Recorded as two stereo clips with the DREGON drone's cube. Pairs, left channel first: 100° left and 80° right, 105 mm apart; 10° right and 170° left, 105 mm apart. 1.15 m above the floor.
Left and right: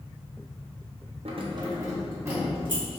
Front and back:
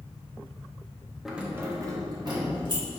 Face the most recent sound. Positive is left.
turn(degrees=-150)